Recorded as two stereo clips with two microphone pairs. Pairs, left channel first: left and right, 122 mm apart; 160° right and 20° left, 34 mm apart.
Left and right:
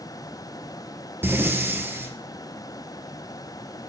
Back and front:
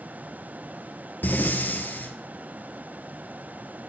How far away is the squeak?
No squeak in this recording.